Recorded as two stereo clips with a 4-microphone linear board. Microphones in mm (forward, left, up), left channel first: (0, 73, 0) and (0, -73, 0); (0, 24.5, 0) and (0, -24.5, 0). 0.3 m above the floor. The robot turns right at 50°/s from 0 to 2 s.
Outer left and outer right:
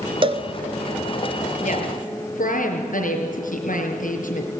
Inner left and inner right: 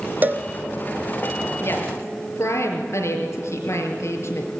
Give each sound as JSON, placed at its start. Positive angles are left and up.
{"t": 0.2, "sound": "a cowbell", "side_deg": -40, "distance_m": 1.2}
{"t": 1.6, "sound": "a woman speaking", "side_deg": 55, "distance_m": 5.0}